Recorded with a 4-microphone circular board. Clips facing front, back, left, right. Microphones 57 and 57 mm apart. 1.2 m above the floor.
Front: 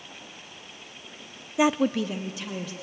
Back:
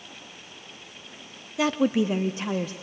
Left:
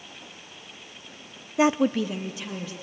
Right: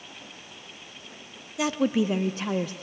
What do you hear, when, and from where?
1.6 s a woman speaking: 60° left, 0.6 m; by 2.7 s 125° right, 1.4 m